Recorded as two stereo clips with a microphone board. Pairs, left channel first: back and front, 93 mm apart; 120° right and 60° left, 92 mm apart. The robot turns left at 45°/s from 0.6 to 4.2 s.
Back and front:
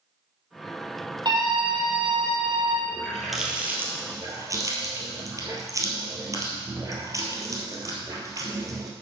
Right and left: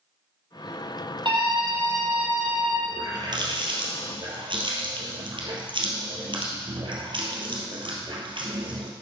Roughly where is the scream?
Ahead left.